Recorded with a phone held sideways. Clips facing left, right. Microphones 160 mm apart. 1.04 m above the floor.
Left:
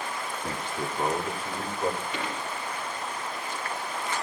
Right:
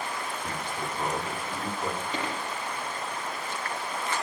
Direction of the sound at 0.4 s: 25° left (ahead or behind).